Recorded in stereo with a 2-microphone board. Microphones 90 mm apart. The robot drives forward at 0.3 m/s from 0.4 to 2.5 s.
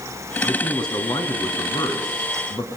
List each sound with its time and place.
0.4 s a man speaking: 50° left (ahead or behind), 3.5 m; by 2.7 s 45° left (ahead or behind), 4 m